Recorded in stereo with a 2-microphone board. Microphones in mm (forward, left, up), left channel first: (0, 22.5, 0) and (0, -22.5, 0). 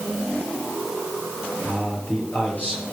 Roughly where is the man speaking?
Left.